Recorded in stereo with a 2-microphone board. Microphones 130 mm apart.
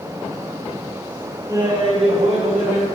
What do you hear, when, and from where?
1.5 s laughter: 25° right (ahead or behind), 1.5 m; by 2.9 s 65° right (ahead or behind), 3 m